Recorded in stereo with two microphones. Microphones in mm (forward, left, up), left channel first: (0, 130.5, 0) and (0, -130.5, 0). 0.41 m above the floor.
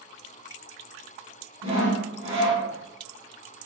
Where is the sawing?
25° right (ahead or behind), 1.4 m.